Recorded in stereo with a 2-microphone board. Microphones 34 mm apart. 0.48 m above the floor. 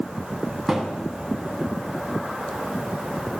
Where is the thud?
10° right (ahead or behind), 1.8 m.